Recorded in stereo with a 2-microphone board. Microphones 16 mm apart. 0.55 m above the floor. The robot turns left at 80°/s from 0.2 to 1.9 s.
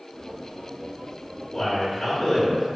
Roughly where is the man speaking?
Left.